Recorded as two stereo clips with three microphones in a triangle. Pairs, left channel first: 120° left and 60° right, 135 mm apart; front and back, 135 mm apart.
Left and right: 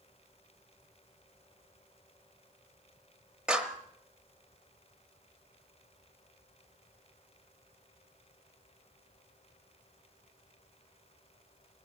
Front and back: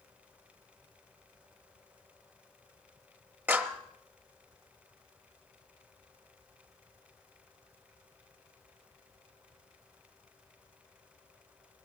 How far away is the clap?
About 1.1 m.